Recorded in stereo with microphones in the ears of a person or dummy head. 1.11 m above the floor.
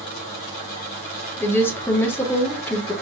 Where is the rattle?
No rattle in this recording.